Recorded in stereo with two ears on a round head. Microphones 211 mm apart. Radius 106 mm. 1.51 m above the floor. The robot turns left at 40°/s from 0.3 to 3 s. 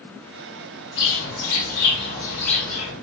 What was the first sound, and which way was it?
A bird, 70° left.